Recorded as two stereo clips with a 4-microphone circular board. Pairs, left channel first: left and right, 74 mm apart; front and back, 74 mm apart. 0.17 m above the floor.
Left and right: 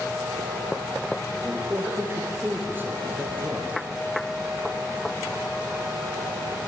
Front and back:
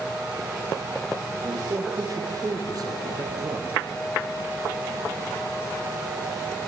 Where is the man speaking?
150° right, 5 m.